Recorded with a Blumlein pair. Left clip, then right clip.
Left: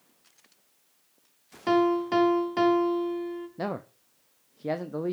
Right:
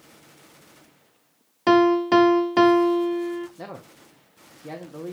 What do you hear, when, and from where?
1.7 s a piano: 25° right, 0.7 m
3.6 s a man speaking: 20° left, 0.8 m